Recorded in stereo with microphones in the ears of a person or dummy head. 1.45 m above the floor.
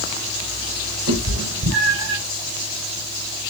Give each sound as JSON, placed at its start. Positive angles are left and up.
{"t": 1.1, "sound": "a cat meowing", "side_deg": -70, "distance_m": 5.5}